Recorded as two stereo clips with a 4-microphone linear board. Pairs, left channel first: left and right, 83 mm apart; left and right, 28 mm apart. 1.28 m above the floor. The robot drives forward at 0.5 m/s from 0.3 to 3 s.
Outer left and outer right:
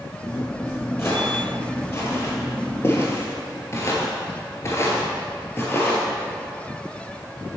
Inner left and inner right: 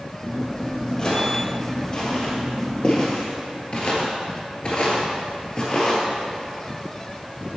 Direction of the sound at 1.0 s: 30° left (ahead or behind).